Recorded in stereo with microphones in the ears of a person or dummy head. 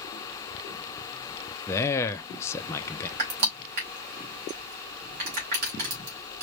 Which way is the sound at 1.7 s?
10° left (ahead or behind).